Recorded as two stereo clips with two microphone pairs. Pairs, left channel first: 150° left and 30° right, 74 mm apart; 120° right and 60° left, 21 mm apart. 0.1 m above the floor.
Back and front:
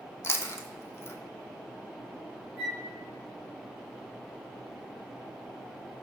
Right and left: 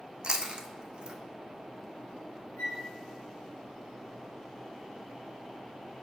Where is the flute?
105° right, 3 m.